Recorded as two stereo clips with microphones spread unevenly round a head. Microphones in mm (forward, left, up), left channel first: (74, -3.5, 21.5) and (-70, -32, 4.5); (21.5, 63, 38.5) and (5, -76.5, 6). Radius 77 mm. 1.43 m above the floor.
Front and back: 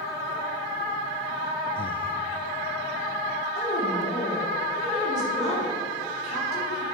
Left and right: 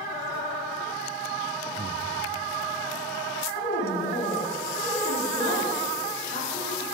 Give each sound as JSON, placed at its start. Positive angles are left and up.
{"t": 1.8, "sound": "breathing", "azimuth_deg": -45, "distance_m": 0.5}
{"t": 3.5, "sound": "a woman speaking", "azimuth_deg": 60, "distance_m": 4.0}